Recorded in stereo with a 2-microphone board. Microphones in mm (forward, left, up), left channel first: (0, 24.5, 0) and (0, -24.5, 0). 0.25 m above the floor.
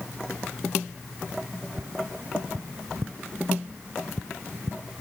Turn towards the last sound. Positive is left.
turn(degrees=-65)  # may be behind; listen again after turning